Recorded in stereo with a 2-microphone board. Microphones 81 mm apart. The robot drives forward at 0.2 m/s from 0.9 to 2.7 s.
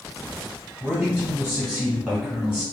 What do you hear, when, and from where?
0.8 s a man speaking: 5° right (ahead or behind), 1.3 m